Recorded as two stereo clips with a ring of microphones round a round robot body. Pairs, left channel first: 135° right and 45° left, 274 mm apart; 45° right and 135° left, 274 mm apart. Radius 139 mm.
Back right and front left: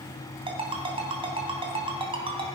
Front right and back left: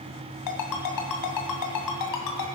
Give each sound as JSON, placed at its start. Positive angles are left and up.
{"t": 0.5, "sound": "a ringtone", "azimuth_deg": -25, "distance_m": 2.5}